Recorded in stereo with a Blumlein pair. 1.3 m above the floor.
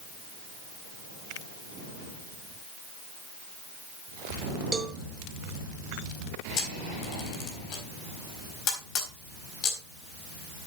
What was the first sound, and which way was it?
A cowbell, 15° right.